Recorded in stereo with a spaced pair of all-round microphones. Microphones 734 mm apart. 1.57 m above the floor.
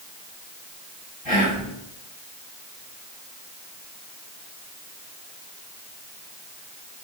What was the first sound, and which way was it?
Whispering, 40° left (ahead or behind).